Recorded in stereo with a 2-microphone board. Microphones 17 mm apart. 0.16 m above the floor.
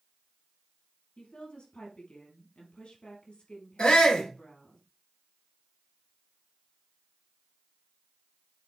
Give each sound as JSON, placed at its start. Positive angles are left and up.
{"t": 1.2, "sound": "a woman speaking", "side_deg": 70, "distance_m": 4.0}
{"t": 3.8, "sound": "a shout", "side_deg": 55, "distance_m": 4.0}